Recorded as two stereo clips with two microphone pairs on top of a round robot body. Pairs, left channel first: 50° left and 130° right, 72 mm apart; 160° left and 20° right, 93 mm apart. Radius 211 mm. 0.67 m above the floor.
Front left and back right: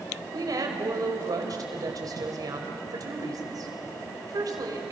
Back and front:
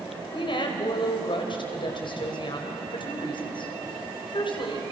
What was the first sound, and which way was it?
A woman speaking, 165° right.